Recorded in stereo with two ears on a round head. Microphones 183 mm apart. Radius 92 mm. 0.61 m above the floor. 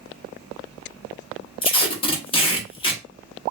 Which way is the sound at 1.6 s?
25° left (ahead or behind).